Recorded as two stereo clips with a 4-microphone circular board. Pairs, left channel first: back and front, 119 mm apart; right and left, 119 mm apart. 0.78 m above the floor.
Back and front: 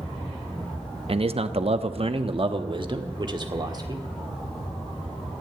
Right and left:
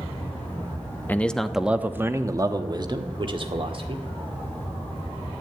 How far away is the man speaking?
About 0.9 m.